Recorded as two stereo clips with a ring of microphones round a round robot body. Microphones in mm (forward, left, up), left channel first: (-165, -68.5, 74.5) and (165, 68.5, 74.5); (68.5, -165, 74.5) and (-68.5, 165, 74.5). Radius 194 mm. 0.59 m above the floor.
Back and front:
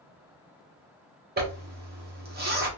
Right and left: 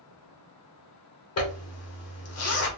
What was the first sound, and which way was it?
A zipper, 35° right.